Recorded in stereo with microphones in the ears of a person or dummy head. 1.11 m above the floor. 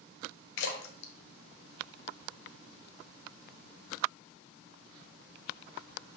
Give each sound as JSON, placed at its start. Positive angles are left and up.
{"t": 0.6, "sound": "a splash", "side_deg": 65, "distance_m": 1.3}